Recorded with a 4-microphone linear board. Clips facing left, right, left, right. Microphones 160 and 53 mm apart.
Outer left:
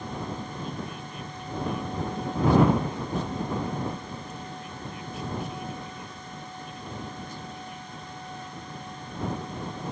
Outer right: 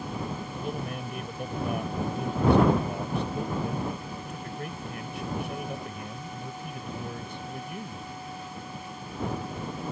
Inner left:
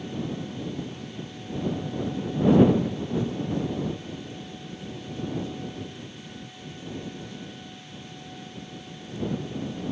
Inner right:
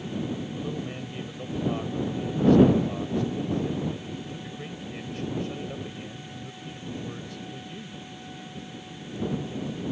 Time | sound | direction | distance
0.5 | a man speaking | 70° right (ahead or behind) | ?